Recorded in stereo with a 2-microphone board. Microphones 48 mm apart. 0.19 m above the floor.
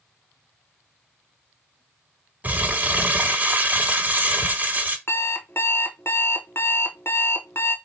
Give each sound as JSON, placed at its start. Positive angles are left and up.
{"t": 2.4, "sound": "crumpling", "side_deg": -35, "distance_m": 1.1}
{"t": 5.1, "sound": "an alarm clock", "side_deg": 55, "distance_m": 0.9}